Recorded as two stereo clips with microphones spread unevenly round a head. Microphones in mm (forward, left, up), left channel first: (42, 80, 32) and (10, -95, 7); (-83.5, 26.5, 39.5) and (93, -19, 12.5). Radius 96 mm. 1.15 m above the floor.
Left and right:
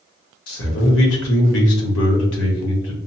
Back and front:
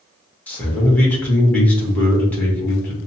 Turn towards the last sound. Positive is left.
turn(degrees=80)